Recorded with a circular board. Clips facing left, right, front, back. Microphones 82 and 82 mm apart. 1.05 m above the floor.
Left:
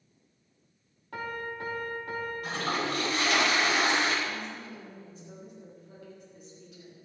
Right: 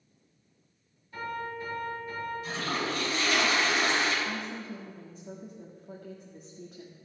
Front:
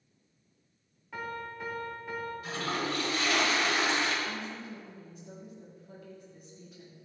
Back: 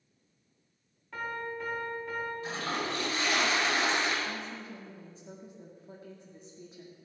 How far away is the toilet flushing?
About 5 m.